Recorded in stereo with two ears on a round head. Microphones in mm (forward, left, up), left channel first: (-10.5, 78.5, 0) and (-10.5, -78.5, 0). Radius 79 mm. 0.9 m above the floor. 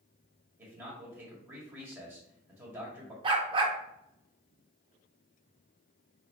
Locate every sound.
0.6 s a man speaking: 10° right (ahead or behind), 1.5 m
3.2 s a dog barking: 30° right (ahead or behind), 0.7 m